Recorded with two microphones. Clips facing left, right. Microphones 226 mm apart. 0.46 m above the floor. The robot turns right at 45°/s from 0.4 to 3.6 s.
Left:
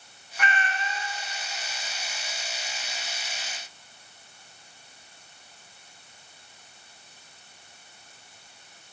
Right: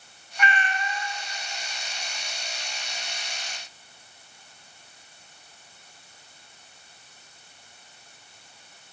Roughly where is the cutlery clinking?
I don't hear cutlery clinking.